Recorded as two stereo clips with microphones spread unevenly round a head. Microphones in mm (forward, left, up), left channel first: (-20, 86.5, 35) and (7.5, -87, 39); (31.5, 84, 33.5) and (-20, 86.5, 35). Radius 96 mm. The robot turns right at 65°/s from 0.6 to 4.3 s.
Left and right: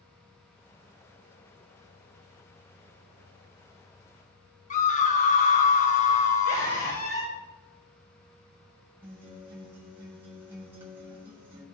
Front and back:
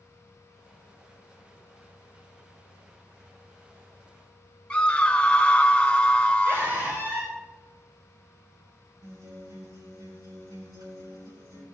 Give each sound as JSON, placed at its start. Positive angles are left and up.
{"t": 4.7, "sound": "a scream", "azimuth_deg": 65, "distance_m": 1.0}
{"t": 6.5, "sound": "a scream", "azimuth_deg": 140, "distance_m": 5.0}
{"t": 9.0, "sound": "a guitar", "azimuth_deg": -160, "distance_m": 4.0}